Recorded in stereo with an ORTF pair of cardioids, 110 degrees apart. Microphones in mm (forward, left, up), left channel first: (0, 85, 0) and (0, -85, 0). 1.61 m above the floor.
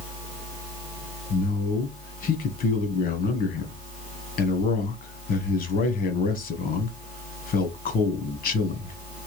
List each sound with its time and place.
1.3 s a man speaking: 55° left, 1.2 m